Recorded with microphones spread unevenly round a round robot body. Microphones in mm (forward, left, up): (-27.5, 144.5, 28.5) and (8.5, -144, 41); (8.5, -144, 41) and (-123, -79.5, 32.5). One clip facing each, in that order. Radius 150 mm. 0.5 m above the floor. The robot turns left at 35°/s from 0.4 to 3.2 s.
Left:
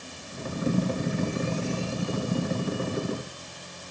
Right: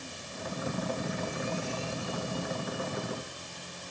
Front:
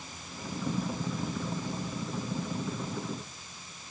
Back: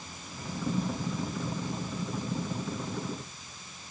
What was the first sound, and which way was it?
Only background noise.